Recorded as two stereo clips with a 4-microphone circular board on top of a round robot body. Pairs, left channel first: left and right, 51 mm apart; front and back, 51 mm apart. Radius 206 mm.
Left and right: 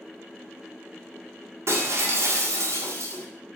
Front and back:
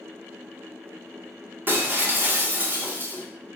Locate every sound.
1.7 s breaking glass: 125° right, 1.8 m